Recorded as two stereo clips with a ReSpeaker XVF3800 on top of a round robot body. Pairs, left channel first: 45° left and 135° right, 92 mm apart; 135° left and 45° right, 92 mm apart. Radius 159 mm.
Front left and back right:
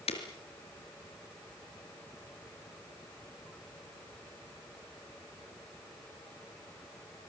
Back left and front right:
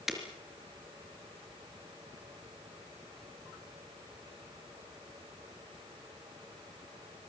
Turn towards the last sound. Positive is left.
turn(degrees=40)